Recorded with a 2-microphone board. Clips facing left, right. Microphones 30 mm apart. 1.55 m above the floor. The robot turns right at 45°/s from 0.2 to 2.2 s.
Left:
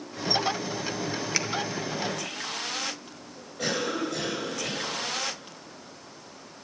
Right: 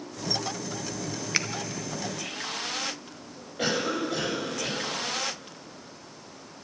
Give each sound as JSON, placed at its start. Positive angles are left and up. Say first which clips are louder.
{"t": 1.3, "sound": "a finger snap", "louder": "right 3 dB", "side_deg": -15, "distance_m": 0.7}
{"t": 3.6, "sound": "a cough", "louder": "right 1 dB", "side_deg": -50, "distance_m": 5.0}